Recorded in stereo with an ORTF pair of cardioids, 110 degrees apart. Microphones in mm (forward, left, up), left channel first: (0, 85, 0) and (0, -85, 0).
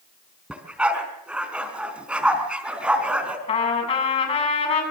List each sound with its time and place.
0.5 s a dog barking: 5° right, 4 m
3.5 s a trumpet: 40° left, 8 m